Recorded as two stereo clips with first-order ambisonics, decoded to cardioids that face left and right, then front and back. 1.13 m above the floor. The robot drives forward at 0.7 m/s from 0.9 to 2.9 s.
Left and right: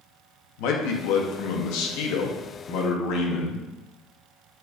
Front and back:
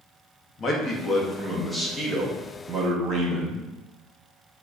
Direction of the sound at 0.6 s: 70° left.